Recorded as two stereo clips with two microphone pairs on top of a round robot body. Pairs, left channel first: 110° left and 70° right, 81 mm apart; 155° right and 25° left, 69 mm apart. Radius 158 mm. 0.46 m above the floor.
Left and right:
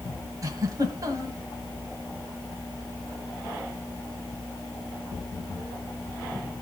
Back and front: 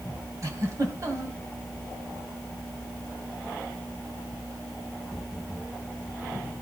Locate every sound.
0.4 s a giggle: 15° right, 2.5 m